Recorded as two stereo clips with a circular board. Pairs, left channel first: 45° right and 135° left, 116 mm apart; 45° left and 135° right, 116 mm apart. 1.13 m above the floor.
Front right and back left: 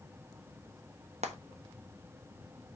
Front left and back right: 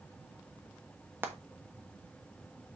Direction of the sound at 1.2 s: 150° left.